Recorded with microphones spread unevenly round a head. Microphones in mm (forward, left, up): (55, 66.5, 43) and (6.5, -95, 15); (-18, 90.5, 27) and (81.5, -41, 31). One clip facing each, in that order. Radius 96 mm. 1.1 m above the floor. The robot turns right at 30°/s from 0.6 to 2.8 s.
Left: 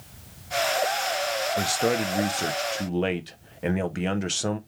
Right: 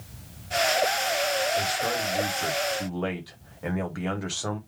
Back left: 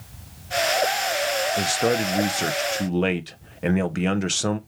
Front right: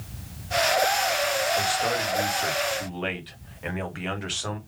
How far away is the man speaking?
About 0.6 m.